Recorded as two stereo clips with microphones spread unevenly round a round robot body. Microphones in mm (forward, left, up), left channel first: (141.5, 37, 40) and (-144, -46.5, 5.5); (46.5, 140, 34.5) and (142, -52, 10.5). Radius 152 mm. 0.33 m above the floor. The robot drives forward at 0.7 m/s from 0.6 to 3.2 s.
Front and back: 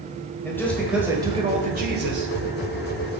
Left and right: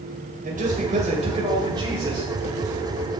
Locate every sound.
0.5 s a man speaking: 70° right, 1.4 m; by 2.3 s 135° right, 1.6 m